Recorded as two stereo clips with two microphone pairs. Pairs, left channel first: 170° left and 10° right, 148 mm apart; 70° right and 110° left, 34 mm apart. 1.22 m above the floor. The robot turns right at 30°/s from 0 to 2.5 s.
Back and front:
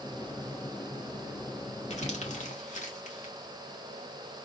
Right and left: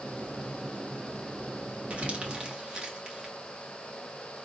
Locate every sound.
1.9 s crumpling: 155° left, 1.2 m; by 3.3 s 170° left, 1.2 m